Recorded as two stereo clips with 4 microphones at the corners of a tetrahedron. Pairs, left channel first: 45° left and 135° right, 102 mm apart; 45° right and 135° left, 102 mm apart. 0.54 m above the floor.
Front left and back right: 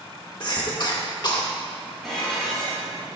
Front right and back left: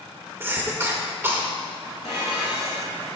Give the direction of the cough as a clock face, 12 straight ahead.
10 o'clock.